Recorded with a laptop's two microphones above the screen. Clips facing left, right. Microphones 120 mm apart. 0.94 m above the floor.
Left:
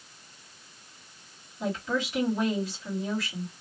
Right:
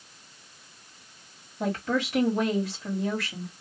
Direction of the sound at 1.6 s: 60° right (ahead or behind).